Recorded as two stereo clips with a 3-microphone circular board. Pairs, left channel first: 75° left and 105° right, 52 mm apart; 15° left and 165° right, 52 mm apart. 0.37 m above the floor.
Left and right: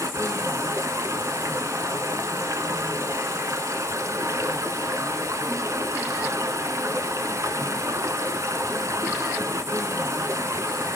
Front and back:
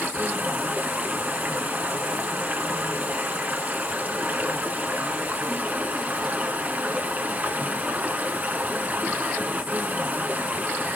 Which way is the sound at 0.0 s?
110° right.